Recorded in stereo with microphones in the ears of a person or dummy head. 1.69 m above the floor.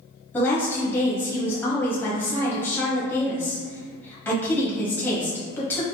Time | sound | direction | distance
0.3 | a woman speaking | 20° left (ahead or behind) | 1.0 m